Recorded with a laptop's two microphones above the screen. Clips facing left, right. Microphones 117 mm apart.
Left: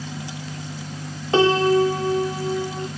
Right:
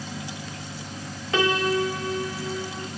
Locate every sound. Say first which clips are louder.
1.3 s a piano: left 7 dB; 30° left (ahead or behind), 0.8 m